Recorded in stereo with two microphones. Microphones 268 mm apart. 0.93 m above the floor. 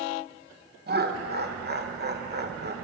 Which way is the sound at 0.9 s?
40° right (ahead or behind).